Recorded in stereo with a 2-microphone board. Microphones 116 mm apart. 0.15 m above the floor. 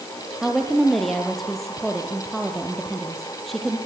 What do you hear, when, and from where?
0.4 s a woman speaking: centre (ahead or behind), 3.5 m